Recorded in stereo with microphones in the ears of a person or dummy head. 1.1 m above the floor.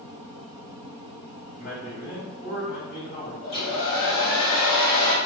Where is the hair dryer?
65° left (ahead or behind), 1.3 m.